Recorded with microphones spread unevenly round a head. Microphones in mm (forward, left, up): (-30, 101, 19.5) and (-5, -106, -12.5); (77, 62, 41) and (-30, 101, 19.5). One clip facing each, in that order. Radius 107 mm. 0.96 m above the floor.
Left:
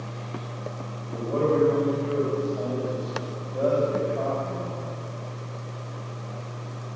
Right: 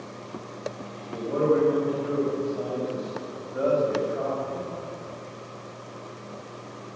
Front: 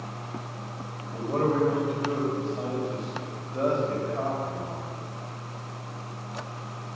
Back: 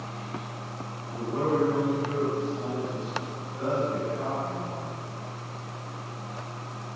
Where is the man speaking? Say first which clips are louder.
Even, front 1 dB; straight ahead, 4.5 m.